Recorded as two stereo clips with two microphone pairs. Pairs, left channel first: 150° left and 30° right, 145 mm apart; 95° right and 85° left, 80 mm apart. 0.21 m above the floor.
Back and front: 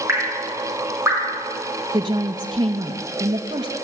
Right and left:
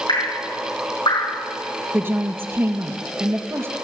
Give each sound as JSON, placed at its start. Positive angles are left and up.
{"t": 0.1, "sound": "dripping", "azimuth_deg": -100, "distance_m": 7.0}
{"t": 1.9, "sound": "a woman speaking", "azimuth_deg": 30, "distance_m": 3.0}